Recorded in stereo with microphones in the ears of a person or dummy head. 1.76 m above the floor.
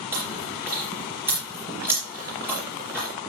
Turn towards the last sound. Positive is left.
turn(degrees=-15)  # may be behind; listen again after turning